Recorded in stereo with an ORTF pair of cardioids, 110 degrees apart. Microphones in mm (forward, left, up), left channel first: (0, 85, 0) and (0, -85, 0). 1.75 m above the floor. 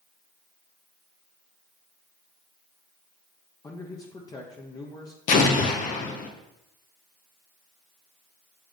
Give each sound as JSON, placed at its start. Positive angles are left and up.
{"t": 3.6, "sound": "a man speaking", "azimuth_deg": 20, "distance_m": 0.9}
{"t": 5.3, "sound": "an explosion", "azimuth_deg": 50, "distance_m": 1.0}